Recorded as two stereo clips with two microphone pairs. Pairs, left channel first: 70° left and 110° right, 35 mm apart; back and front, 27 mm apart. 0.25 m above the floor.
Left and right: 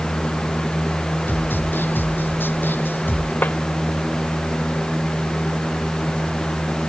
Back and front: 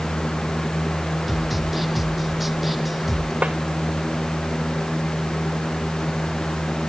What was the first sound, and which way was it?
A snare drum, 90° left.